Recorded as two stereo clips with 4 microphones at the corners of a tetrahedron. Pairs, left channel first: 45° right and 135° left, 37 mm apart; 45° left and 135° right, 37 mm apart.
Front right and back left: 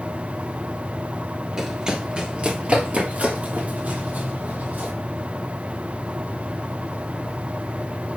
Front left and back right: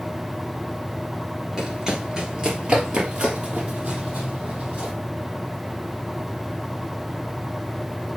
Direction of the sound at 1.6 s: Straight behind.